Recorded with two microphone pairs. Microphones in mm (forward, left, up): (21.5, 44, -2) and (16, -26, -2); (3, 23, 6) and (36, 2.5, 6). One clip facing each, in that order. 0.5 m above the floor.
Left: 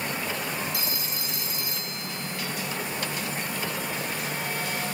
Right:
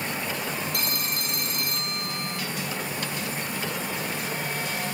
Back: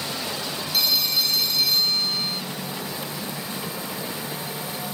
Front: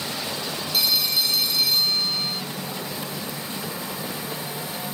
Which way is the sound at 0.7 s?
120° right.